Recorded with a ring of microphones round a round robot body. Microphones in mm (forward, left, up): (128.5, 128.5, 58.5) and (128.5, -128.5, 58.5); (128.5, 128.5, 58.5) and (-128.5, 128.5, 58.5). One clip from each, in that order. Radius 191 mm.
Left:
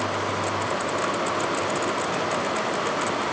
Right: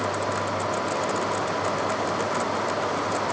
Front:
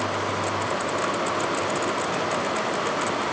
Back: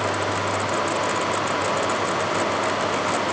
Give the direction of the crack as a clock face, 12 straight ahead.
No crack in this recording.